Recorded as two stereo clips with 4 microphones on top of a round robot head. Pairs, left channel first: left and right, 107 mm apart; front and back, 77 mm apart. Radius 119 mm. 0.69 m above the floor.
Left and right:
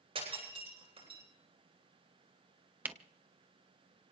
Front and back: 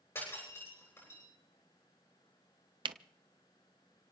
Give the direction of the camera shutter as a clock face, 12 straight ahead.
5 o'clock.